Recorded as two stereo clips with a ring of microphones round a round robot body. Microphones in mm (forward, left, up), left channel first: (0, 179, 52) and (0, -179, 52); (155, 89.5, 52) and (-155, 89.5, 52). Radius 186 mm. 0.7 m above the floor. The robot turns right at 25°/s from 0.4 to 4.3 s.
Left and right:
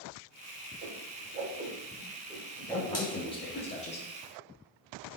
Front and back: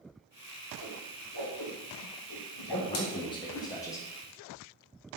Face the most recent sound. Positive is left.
turn(degrees=70)